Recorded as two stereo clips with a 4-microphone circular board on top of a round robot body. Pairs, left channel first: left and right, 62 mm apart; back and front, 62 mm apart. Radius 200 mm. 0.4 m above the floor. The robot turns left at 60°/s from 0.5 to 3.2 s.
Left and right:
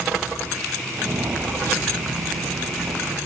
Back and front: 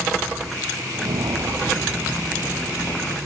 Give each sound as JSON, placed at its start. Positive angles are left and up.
{"t": 0.9, "sound": "footsteps", "azimuth_deg": -20, "distance_m": 0.7}